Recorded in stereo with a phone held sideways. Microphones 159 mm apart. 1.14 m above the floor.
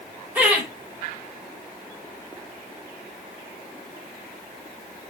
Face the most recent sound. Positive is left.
turn(degrees=-10)  # may be behind; listen again after turning